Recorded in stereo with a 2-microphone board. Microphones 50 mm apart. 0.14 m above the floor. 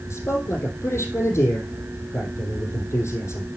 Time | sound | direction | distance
0.1 | a man speaking | 55° left (ahead or behind) | 3.5 m